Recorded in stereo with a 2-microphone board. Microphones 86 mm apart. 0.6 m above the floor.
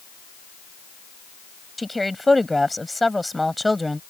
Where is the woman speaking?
Centre (ahead or behind).